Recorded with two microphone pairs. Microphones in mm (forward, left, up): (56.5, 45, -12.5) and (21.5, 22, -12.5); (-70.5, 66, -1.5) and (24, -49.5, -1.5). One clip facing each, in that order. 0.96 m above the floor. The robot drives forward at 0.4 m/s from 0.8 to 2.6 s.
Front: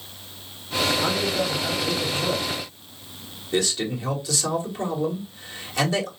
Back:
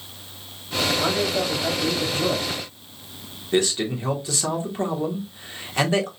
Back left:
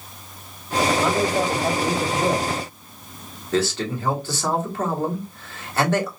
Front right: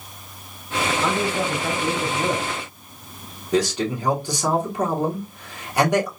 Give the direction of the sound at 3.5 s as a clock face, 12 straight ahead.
4 o'clock.